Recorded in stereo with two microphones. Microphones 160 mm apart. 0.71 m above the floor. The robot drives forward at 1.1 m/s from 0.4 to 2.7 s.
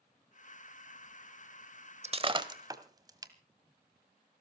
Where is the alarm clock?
I don't hear an alarm clock.